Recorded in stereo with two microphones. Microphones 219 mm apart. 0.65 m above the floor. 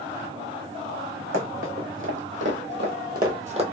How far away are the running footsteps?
About 2 m.